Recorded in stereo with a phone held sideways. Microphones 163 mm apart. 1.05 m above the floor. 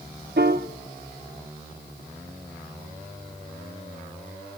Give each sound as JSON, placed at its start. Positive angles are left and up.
{"t": 0.4, "sound": "a piano", "side_deg": -75, "distance_m": 1.1}